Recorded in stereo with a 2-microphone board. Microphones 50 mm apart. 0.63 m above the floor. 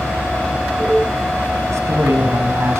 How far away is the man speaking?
About 4.5 m.